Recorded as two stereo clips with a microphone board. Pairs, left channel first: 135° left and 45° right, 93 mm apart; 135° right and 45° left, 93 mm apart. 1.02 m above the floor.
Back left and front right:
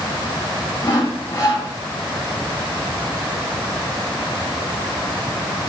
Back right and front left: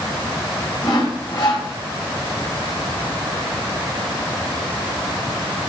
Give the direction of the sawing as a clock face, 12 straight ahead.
6 o'clock.